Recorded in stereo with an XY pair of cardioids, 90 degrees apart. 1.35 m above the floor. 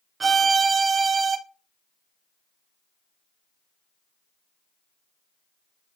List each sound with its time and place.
0.2 s a violin: 45° right, 0.6 m